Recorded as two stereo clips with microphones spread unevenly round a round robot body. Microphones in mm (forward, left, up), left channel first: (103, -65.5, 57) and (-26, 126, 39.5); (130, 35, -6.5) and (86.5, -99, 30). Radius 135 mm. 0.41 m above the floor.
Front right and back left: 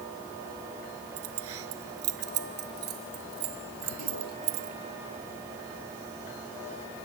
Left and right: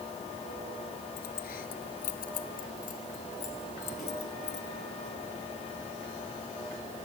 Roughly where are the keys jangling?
Left.